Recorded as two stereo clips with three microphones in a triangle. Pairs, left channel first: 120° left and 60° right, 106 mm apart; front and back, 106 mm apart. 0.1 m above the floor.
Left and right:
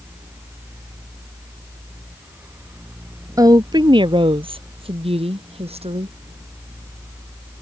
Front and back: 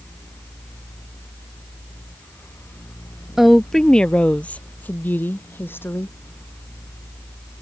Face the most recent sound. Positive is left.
turn(degrees=-70)